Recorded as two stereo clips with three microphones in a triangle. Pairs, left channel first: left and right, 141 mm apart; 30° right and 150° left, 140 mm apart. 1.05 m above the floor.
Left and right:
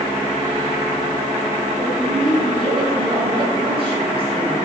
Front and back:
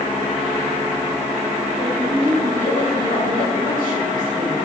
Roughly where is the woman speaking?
Ahead right.